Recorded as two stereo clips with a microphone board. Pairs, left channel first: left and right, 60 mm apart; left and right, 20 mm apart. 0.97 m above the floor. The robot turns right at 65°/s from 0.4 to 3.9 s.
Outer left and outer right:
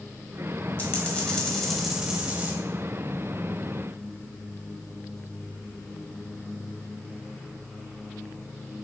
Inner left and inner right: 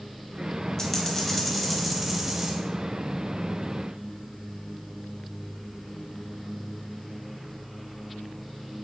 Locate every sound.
0.8 s a dropped coin: 115° left, 0.8 m; by 2.5 s 130° right, 0.8 m